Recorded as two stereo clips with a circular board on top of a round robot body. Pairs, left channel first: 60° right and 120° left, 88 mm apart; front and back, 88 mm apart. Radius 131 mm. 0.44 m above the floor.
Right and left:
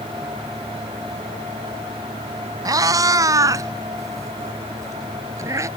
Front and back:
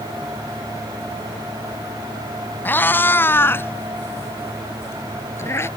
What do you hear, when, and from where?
2.6 s a cat meowing: 70° left; by 5.7 s 60° left